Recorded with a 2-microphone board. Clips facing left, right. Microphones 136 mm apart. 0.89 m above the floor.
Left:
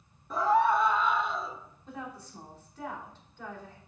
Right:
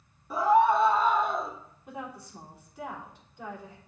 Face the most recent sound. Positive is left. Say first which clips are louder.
# right 2 dB
turn(degrees=-10)  # may be behind; listen again after turning